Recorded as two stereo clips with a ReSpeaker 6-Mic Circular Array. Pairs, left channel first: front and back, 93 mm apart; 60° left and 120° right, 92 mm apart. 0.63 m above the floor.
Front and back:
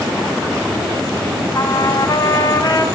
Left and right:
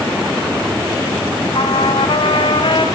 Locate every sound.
1.5 s a trumpet: 45° left, 3.5 m